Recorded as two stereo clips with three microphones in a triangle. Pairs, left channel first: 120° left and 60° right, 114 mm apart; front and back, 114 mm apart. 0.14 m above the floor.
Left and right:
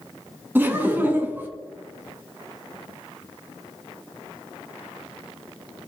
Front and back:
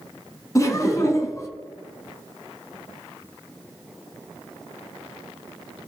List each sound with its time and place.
0.6 s laughter: 10° right, 1.2 m